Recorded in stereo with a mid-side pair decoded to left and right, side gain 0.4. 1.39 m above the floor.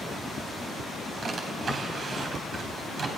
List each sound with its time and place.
1.2 s a drawer: 60° right, 3.5 m